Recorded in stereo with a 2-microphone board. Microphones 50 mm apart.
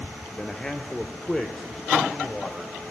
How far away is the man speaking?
About 1.2 m.